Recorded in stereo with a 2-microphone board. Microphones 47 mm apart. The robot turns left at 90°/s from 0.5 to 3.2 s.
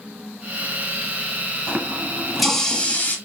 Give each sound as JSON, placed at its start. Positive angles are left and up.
{"t": 1.7, "sound": "a running tap", "azimuth_deg": -110, "distance_m": 1.0}